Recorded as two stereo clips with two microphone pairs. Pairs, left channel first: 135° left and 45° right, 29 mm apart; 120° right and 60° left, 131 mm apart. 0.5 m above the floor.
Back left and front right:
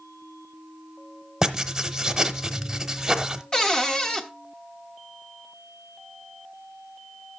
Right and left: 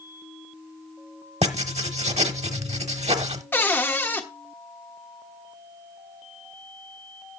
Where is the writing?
25° left, 0.9 m.